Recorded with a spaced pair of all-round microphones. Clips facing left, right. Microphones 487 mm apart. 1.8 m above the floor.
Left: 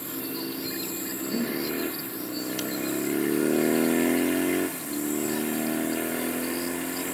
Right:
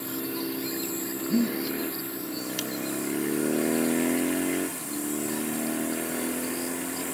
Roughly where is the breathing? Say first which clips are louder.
Right 4 dB; right.